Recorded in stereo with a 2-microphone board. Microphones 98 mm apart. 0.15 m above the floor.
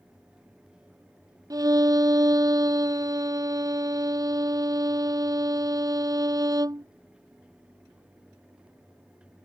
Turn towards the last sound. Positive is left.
turn(degrees=-40)  # may be behind; listen again after turning